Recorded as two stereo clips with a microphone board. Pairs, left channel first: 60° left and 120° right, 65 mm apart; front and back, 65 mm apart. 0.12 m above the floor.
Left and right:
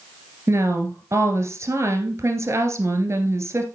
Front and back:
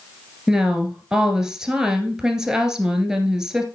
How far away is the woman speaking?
About 1.8 m.